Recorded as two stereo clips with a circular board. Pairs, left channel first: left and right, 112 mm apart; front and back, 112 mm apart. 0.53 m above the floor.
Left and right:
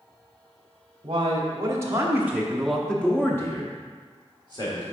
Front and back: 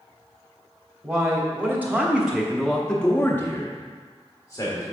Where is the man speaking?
120° right, 1.2 m; by 4.9 s 55° left, 1.5 m.